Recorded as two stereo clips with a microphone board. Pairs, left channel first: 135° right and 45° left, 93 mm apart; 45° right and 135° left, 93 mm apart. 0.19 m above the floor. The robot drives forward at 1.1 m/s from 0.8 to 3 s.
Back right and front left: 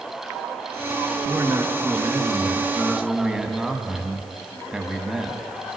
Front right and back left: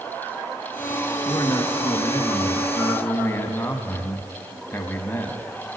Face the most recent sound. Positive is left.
turn(degrees=-25)